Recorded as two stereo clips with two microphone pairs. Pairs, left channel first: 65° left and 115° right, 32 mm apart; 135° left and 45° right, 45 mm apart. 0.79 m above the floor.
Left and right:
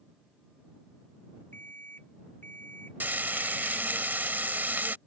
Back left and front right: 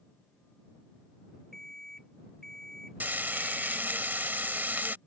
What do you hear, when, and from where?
1.5 s an alarm clock: 55° left
3.0 s frying: 90° right